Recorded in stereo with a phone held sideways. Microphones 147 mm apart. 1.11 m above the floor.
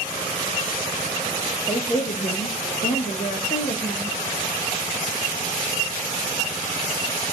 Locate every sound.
1.7 s a woman speaking: 30° left (ahead or behind), 0.9 m; by 4.1 s 75° left (ahead or behind), 1.4 m